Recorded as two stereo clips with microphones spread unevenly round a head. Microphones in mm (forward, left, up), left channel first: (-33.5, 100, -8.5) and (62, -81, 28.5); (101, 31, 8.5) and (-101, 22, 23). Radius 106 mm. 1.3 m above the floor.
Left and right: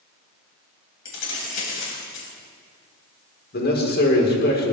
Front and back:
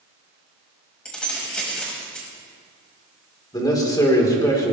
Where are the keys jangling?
90° left, 5.5 m.